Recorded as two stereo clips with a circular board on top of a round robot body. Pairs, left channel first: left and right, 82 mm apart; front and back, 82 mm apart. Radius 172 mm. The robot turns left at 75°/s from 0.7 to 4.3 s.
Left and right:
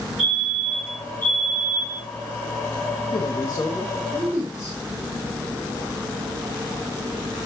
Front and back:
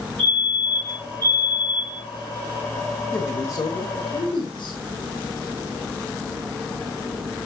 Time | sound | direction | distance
0.2 | a fire alarm | 175° right | 7 m
3.1 | a man speaking | 65° left | 2 m